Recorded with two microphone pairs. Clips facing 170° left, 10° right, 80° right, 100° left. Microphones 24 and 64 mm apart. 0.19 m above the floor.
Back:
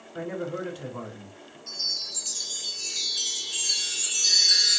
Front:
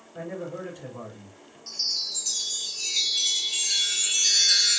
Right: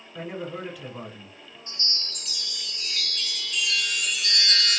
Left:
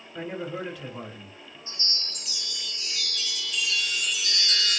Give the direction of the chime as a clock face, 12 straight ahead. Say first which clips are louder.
Front 1 dB, right 1 dB; 2 o'clock.